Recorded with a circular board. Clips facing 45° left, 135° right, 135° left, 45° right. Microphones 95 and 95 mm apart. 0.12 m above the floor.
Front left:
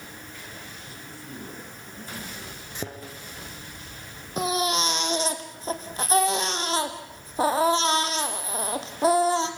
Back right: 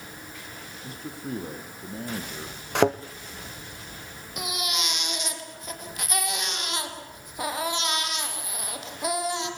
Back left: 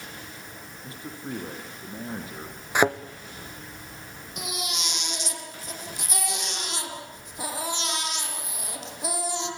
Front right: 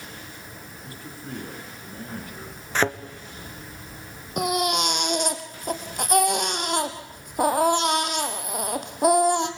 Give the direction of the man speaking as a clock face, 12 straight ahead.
5 o'clock.